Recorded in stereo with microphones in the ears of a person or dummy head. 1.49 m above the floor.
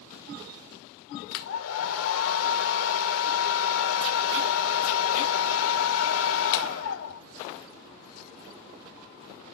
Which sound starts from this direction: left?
A hair dryer, at 1.3 s.